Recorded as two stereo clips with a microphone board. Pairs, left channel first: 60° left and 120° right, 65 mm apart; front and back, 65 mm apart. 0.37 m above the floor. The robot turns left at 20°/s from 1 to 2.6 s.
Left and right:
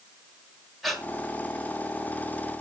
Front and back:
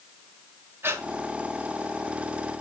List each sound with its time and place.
0.8 s breathing: 145° left, 1.8 m